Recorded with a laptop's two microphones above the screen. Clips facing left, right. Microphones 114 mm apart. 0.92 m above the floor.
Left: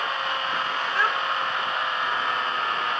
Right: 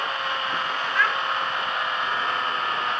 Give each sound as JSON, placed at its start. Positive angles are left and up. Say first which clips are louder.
{"t": 0.9, "sound": "a child speaking", "louder": "right 1 dB", "side_deg": 30, "distance_m": 1.5}